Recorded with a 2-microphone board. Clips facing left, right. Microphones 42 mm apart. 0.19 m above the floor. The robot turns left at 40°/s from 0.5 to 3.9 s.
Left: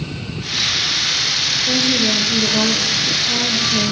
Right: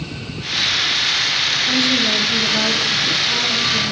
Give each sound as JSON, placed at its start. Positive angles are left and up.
{"t": 1.7, "sound": "a woman speaking", "azimuth_deg": 135, "distance_m": 3.0}